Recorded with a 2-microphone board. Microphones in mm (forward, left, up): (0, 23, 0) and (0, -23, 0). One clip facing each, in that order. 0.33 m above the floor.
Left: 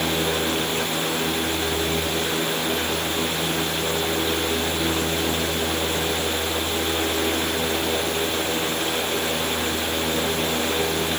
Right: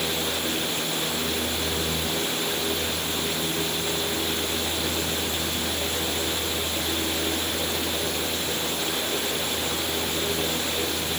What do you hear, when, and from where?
Only background noise.